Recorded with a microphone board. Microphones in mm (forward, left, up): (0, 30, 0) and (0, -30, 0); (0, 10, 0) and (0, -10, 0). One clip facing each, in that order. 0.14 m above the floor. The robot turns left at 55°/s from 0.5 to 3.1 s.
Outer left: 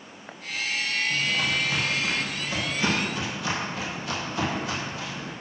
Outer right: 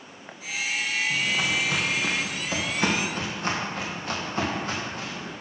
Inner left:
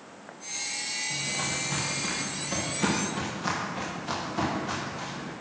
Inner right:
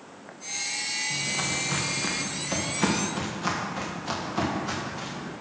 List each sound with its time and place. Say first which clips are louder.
1.1 s footsteps: even, inner right 2 dB; 40° right (ahead or behind), 3 m